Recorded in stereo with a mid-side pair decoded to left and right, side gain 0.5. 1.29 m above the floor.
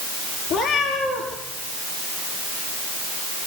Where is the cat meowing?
60° left, 6 m.